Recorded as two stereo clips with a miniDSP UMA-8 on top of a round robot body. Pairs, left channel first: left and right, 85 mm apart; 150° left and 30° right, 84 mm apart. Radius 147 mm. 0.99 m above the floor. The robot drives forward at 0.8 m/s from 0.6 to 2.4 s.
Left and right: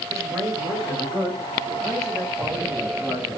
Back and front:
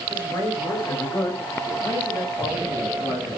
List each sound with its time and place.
0.1 s a man speaking: 145° right, 6.5 m; by 3.4 s 150° right, 7.5 m